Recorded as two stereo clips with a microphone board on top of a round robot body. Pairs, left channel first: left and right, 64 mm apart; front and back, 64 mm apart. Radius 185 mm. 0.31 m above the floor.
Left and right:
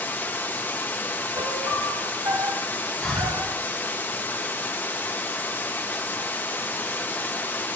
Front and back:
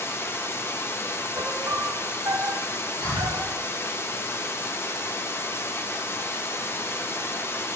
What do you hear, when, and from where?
0.0 s running water: 40° left, 0.9 m
1.4 s a piano: 130° right, 1.0 m
3.0 s breathing: 5° left, 2 m